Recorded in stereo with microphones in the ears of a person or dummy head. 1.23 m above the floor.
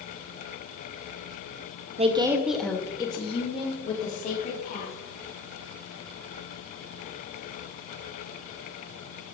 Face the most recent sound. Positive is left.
turn(degrees=45)  # may be behind; listen again after turning